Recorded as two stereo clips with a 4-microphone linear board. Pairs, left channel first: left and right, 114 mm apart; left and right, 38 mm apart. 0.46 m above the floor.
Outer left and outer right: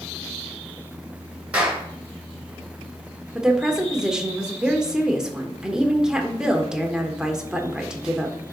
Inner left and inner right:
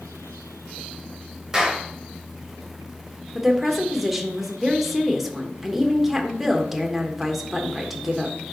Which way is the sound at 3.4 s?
5° right (ahead or behind).